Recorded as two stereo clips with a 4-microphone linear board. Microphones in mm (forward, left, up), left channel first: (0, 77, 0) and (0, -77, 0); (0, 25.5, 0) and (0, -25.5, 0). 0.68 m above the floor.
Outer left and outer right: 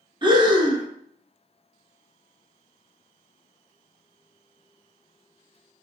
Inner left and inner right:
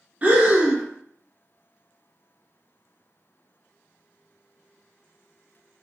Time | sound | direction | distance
0.2 | breathing | 30° right (ahead or behind) | 0.6 m